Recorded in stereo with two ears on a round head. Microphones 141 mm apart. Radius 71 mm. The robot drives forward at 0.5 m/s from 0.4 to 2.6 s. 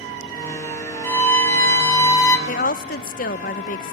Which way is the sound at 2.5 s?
50° left (ahead or behind).